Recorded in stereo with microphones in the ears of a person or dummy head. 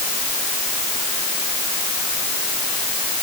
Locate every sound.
Only background noise.